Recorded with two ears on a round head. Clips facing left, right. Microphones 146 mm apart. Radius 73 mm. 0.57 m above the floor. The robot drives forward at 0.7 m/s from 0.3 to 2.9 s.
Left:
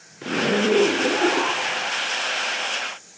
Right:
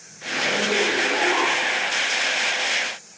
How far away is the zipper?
About 3.5 m.